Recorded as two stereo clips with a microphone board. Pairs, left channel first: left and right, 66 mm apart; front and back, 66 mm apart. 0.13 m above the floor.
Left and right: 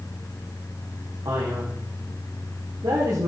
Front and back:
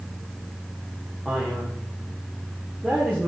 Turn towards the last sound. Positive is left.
turn(degrees=-90)